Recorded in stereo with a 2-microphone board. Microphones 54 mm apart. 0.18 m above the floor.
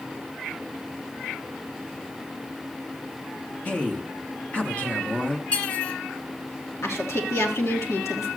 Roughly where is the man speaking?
Left.